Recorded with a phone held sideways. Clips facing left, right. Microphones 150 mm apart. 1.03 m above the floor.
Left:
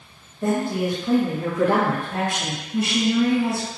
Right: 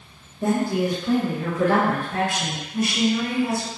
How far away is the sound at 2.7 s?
About 1.5 m.